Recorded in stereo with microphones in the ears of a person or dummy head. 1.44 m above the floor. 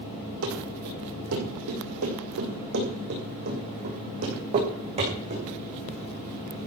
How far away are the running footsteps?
About 5.5 m.